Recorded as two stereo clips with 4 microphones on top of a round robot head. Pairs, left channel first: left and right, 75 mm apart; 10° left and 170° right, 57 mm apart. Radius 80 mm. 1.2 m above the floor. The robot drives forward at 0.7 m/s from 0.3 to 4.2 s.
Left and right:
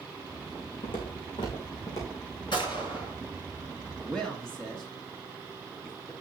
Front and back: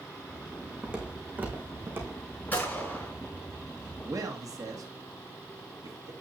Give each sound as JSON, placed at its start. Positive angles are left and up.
{"t": 0.8, "sound": "footsteps", "azimuth_deg": 120, "distance_m": 3.0}
{"t": 2.5, "sound": "a gunshot", "azimuth_deg": 70, "distance_m": 6.0}
{"t": 4.0, "sound": "a man speaking", "azimuth_deg": 170, "distance_m": 1.7}